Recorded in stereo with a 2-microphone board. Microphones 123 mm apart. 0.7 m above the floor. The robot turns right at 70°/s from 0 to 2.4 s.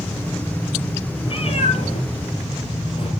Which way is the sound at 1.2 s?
45° left (ahead or behind).